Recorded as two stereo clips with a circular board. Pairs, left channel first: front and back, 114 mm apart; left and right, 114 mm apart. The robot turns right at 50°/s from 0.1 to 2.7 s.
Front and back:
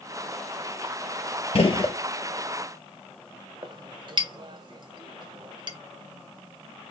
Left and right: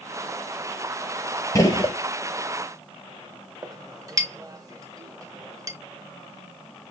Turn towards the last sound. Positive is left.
turn(degrees=-145)